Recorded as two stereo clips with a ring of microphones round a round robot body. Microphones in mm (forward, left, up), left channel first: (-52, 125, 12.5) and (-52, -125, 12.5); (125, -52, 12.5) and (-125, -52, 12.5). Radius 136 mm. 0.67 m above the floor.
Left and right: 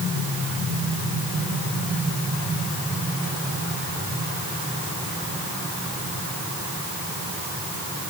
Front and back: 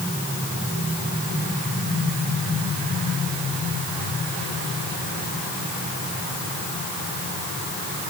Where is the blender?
No blender in this recording.